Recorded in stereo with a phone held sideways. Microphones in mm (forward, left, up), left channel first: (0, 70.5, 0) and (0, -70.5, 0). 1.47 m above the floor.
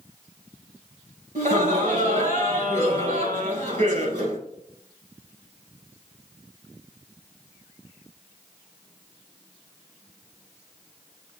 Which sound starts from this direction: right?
Laughter, at 1.4 s.